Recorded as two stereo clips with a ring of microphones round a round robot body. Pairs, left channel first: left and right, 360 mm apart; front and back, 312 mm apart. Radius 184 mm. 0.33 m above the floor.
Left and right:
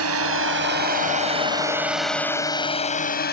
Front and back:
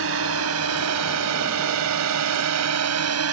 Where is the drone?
135° right; by 3.3 s 150° left.